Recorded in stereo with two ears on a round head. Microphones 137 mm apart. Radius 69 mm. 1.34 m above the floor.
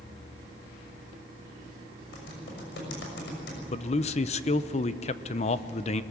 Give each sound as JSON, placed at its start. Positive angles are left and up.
{"t": 2.1, "sound": "typing on a keyboard", "side_deg": 90, "distance_m": 6.0}
{"t": 3.7, "sound": "a man speaking", "side_deg": 45, "distance_m": 0.8}